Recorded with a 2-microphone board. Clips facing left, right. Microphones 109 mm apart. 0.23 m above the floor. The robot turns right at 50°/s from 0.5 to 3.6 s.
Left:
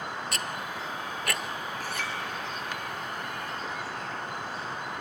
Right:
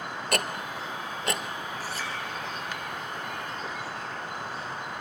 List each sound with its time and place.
0.3 s ticking: 65° right (ahead or behind), 0.9 m; by 1.4 s 15° right (ahead or behind), 0.9 m
1.8 s a clink: 55° left (ahead or behind), 3 m; by 2.1 s 70° left (ahead or behind), 3 m